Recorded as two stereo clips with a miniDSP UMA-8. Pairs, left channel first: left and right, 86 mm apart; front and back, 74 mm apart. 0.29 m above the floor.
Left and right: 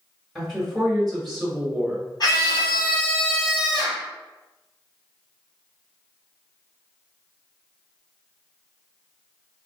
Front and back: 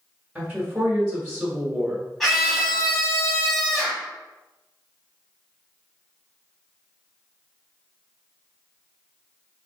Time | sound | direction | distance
0.3 | a woman speaking | 175° left | 1.4 m
2.2 | a scream | 90° left | 2.0 m